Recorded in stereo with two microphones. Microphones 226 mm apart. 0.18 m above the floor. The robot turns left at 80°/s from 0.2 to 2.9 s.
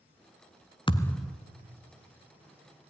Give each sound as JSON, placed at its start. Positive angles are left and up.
{"t": 0.9, "sound": "a thud", "azimuth_deg": 25, "distance_m": 0.8}